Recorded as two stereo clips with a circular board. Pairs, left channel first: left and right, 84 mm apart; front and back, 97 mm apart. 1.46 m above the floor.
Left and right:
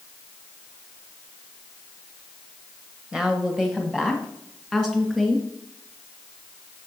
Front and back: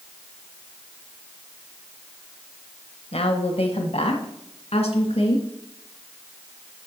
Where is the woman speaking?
10° right, 1.3 m; by 5.5 s 5° right, 2.5 m.